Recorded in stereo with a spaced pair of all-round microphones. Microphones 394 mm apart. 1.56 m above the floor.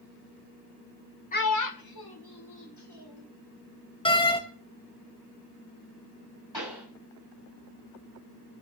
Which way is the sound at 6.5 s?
80° left.